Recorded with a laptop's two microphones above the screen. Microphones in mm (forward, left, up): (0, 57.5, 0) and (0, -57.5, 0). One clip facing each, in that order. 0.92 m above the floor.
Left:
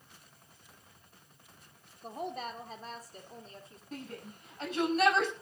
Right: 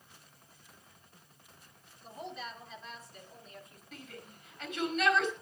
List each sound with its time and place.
2.0 s a woman speaking: 55° left (ahead or behind), 3 m; by 3.8 s 30° left (ahead or behind), 3.5 m
3.9 s a shout: 35° left (ahead or behind), 10 m